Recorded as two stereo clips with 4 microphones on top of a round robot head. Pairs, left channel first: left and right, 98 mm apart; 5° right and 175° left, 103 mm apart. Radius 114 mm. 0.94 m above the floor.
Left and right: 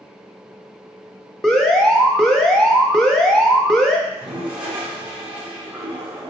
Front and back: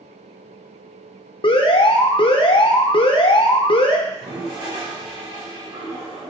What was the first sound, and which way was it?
An alarm, 5° left.